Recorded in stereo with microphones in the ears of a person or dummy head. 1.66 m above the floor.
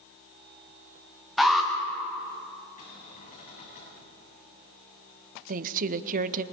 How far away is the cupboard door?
About 9 m.